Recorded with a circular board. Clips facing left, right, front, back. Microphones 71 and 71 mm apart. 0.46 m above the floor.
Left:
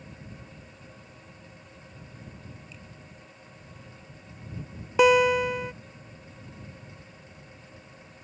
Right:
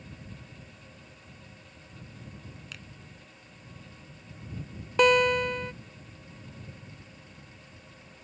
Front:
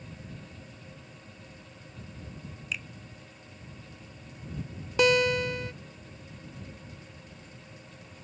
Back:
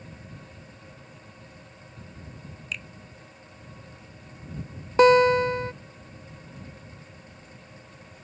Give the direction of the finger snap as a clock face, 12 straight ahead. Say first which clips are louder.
Right 1 dB, even; 3 o'clock.